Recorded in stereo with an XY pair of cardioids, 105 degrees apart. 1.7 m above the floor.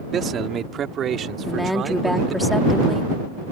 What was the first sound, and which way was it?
A man speaking, 50° right.